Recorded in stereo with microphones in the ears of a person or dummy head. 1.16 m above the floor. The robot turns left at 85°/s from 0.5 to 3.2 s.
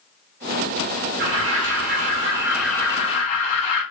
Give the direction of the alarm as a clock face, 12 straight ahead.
2 o'clock.